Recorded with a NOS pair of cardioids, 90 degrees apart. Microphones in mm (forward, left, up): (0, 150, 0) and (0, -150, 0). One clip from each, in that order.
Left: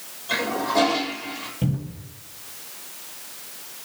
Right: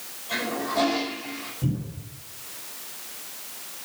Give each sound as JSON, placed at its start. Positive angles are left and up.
{"t": 0.3, "sound": "a toilet flushing", "azimuth_deg": 55, "distance_m": 6.5}
{"t": 1.6, "sound": "a cupboard door", "azimuth_deg": 70, "distance_m": 8.5}